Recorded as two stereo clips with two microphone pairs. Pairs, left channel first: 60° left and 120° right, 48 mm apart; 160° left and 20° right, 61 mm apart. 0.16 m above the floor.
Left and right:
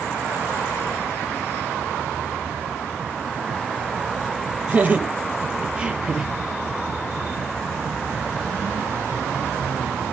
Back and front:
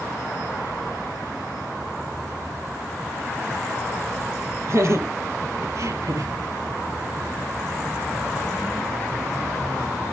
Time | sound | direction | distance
4.7 | laughter | 60° right | 4.5 m